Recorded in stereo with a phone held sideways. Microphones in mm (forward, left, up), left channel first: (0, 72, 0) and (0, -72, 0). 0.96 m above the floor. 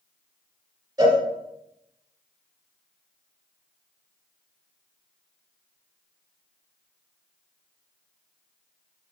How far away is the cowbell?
About 2 m.